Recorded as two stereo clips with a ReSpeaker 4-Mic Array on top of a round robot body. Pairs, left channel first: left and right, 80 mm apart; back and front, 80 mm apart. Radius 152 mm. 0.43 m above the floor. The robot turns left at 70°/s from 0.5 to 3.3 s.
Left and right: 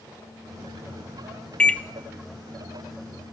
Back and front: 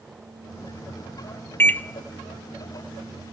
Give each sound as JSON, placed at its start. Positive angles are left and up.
{"t": 1.6, "sound": "a microwave", "azimuth_deg": 155, "distance_m": 0.6}